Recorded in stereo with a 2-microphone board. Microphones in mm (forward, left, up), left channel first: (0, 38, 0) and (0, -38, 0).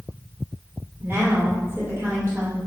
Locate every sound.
1.0 s a woman speaking: 30° right (ahead or behind), 2.0 m